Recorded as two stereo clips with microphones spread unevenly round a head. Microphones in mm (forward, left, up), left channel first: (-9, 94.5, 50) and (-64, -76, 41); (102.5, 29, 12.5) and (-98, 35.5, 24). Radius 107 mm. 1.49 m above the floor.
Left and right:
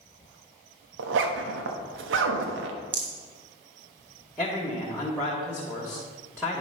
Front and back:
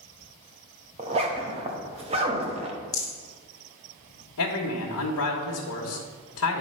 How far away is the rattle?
About 0.9 m.